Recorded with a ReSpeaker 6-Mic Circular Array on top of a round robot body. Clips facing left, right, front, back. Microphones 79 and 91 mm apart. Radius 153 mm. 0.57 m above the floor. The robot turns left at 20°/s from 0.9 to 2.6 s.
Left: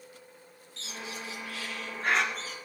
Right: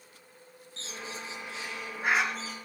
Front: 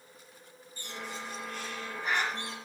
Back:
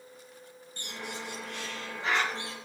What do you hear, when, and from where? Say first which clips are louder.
0.8 s a bird: even, back 1 dB; 145° right, 3 m; by 2.5 s straight behind, 3 m